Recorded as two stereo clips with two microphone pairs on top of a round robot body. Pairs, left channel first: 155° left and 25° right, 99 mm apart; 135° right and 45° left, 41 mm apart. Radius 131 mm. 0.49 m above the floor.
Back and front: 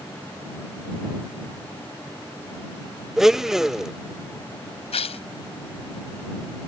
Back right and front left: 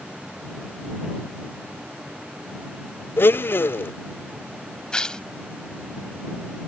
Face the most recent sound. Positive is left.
turn(degrees=155)